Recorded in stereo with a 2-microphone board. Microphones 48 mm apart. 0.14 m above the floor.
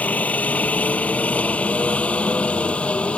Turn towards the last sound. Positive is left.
turn(degrees=25)  # may be behind; listen again after turning